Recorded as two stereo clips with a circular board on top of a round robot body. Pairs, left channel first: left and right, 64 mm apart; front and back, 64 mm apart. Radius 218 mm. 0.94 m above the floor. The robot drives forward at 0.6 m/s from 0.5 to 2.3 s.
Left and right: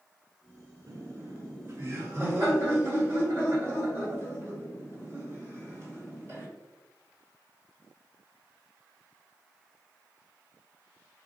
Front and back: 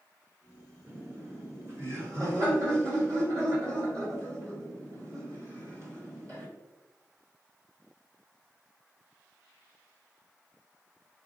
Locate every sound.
0.9 s laughter: 120° right, 1.3 m; by 6.5 s 145° right, 1.8 m